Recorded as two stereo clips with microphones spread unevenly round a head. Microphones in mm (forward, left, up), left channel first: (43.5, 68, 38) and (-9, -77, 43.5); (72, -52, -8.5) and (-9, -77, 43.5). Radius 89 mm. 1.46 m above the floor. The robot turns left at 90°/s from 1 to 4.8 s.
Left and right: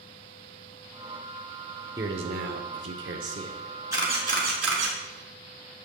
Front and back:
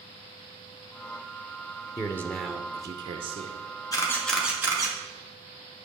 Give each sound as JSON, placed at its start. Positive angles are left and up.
{"t": 2.0, "sound": "a man speaking", "azimuth_deg": -35, "distance_m": 0.7}
{"t": 3.9, "sound": "a camera shutter", "azimuth_deg": -40, "distance_m": 2.0}